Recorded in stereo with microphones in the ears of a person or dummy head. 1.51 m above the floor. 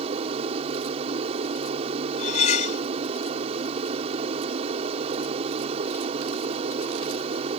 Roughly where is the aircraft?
Right.